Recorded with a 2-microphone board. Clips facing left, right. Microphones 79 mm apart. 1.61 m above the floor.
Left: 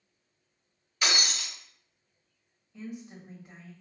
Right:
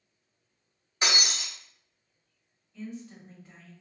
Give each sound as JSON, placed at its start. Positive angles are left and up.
{"t": 1.0, "sound": "breaking glass", "side_deg": -30, "distance_m": 2.0}
{"t": 2.7, "sound": "a woman speaking", "side_deg": 25, "distance_m": 1.7}